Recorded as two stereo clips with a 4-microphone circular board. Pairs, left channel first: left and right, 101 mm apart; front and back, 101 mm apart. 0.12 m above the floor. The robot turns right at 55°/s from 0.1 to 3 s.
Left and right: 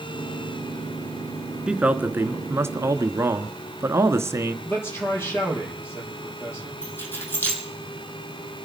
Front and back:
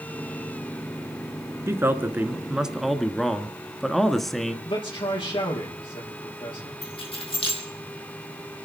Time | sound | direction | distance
1.7 | a man speaking | 160° right | 1.2 m
4.7 | a man speaking | 25° left | 4.5 m
6.8 | keys jangling | 20° left | 4 m